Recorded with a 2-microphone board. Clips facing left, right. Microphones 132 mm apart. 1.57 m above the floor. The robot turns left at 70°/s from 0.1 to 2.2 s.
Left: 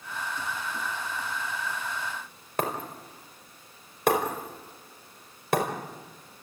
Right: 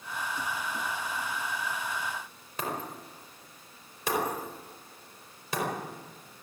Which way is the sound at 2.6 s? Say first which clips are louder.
Left 4 dB; 60° left (ahead or behind).